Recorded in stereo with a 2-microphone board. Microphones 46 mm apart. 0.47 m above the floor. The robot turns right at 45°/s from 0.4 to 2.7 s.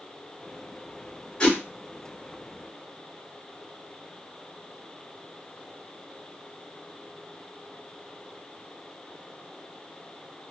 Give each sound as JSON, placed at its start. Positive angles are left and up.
{"t": 1.4, "sound": "a whoosh", "side_deg": 20, "distance_m": 1.6}